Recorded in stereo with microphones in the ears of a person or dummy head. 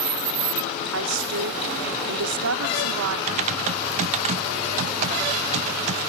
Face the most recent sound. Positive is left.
turn(degrees=-40)  # may be behind; listen again after turning